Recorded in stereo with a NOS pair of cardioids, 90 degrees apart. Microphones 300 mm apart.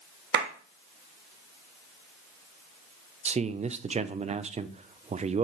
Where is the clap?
40° right, 1.5 m.